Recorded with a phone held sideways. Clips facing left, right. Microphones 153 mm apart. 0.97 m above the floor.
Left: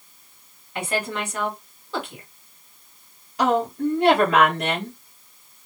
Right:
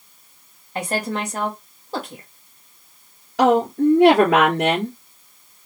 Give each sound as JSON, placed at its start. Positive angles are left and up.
{"t": 0.8, "sound": "a woman speaking", "side_deg": -40, "distance_m": 1.5}
{"t": 3.4, "sound": "a woman speaking", "side_deg": -80, "distance_m": 2.0}